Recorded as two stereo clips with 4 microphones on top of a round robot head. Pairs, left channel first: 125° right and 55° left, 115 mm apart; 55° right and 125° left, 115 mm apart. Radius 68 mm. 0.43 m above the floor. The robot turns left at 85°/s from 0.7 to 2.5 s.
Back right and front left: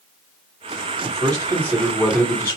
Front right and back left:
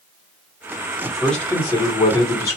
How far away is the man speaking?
About 1.1 m.